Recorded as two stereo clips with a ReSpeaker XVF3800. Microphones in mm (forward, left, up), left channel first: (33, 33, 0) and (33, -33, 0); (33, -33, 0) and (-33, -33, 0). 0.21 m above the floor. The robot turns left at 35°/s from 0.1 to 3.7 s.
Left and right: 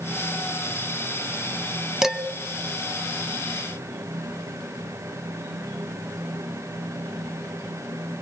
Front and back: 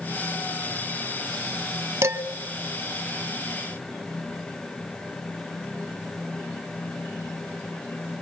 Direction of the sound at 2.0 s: 170° right.